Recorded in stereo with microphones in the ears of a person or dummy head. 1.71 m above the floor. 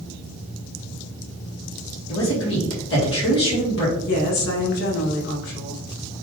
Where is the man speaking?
70° left (ahead or behind), 1.8 m.